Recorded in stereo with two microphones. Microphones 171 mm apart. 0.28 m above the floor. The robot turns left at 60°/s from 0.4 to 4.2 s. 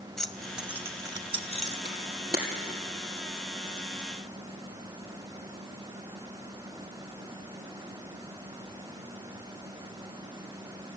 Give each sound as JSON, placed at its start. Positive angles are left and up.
{"t": 0.2, "sound": "keys jangling", "side_deg": 5, "distance_m": 0.9}
{"t": 1.9, "sound": "a camera shutter", "side_deg": -85, "distance_m": 3.5}